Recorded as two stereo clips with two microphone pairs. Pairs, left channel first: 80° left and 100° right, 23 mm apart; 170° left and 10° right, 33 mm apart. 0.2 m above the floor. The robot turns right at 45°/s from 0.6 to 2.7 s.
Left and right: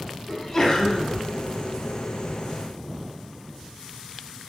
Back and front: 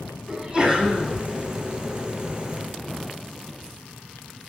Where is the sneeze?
30° left, 2.0 m; by 1.1 s 55° left, 2.0 m.